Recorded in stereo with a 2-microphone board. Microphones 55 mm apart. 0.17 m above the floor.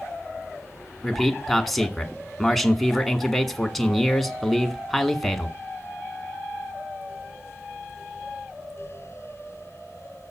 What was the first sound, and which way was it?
A man speaking, 5° left (ahead or behind).